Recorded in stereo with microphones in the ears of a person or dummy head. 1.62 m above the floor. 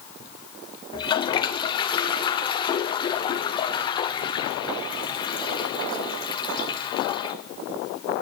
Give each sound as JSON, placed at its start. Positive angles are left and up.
{"t": 0.9, "sound": "a toilet flushing", "side_deg": 30, "distance_m": 0.6}